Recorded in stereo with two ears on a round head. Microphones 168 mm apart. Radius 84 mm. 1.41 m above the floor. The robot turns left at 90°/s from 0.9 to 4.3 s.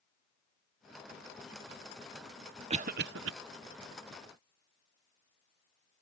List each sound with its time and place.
2.7 s a cough: 30° right (ahead or behind); by 3.3 s 80° right